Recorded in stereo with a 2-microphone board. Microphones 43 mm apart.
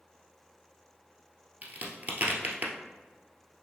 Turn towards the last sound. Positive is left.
turn(degrees=-40)  # may be behind; listen again after turning